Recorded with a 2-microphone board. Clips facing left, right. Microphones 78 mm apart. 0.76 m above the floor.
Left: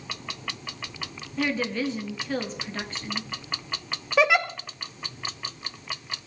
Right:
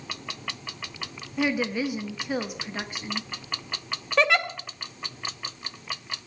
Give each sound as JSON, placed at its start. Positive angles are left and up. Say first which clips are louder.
{"t": 1.4, "sound": "a woman speaking", "louder": "right 1 dB", "side_deg": -10, "distance_m": 1.1}
{"t": 4.2, "sound": "a giggle", "louder": "left 2 dB", "side_deg": 5, "distance_m": 0.6}